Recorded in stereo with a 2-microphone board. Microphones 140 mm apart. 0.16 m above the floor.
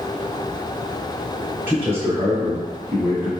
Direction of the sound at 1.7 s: 15° right (ahead or behind).